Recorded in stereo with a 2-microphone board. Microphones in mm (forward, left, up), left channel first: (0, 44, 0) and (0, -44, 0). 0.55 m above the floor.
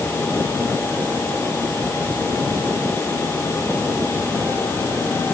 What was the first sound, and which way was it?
Only background noise.